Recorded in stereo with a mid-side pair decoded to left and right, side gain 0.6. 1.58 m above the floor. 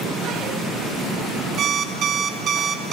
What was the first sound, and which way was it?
An alarm clock, 50° right.